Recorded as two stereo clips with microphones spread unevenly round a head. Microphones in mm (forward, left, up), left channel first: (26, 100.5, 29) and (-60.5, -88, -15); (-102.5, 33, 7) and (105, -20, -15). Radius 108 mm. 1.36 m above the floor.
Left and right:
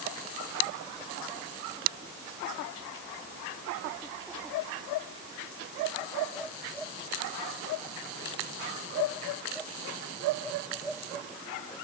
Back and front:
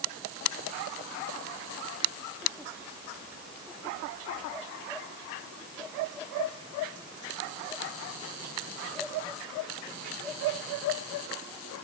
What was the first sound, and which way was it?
Only background noise.